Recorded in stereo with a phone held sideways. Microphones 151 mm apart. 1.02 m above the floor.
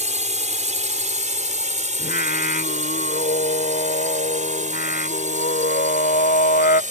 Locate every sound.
0.0 s a drone: 50° right (ahead or behind); by 6.9 s 55° right (ahead or behind)
2.0 s singing: 85° left